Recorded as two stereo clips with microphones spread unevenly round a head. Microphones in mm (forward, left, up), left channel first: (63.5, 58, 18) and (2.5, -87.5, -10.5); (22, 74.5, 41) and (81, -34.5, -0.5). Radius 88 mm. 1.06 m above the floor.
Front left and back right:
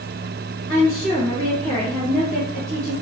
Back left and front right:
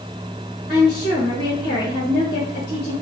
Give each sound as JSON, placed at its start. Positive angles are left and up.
{"t": 0.7, "sound": "a woman speaking", "azimuth_deg": 135, "distance_m": 1.3}